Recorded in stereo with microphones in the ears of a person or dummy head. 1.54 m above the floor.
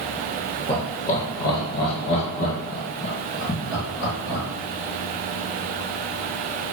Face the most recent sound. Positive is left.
turn(degrees=70)  # may be behind; listen again after turning